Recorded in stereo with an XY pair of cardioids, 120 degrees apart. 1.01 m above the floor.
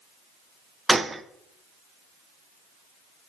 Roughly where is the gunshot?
Ahead.